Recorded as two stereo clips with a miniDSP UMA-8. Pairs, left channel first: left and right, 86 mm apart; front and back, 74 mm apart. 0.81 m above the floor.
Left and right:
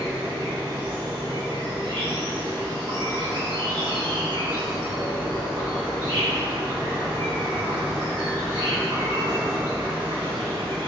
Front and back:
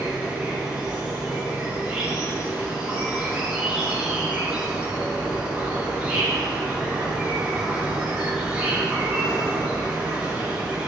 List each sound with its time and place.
0.0 s an insect: 100° right, 2.5 m